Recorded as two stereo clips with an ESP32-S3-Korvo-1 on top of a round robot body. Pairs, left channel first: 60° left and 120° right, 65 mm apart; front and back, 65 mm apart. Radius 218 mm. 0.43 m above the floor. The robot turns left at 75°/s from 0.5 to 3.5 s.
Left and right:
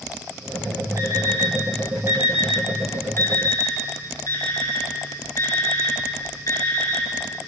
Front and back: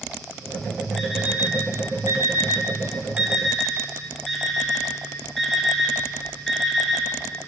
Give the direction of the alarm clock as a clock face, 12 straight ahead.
3 o'clock.